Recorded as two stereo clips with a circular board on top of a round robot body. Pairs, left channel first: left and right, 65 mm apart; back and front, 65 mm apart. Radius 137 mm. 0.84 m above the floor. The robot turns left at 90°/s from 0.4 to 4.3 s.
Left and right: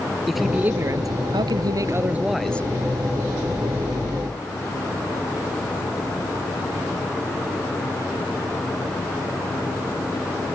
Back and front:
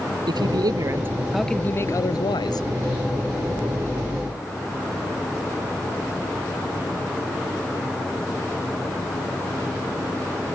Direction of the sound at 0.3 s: Straight ahead.